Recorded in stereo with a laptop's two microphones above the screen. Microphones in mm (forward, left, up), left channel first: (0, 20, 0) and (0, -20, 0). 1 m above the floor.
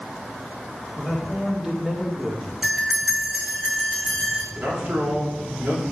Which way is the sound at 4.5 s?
60° right (ahead or behind).